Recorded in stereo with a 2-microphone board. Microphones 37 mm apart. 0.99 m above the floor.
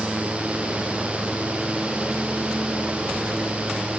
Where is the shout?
No shout in this recording.